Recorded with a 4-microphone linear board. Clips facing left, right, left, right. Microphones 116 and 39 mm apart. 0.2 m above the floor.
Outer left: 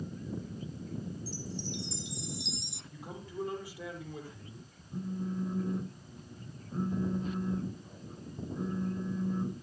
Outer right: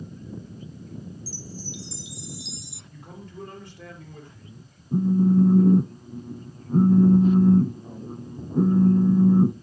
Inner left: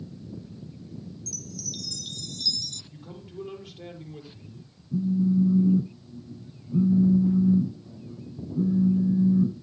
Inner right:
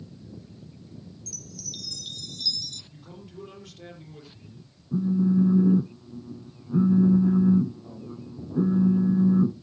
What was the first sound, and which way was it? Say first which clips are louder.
A chime: outer right 1 dB, inner left 3 dB; 5° right (ahead or behind).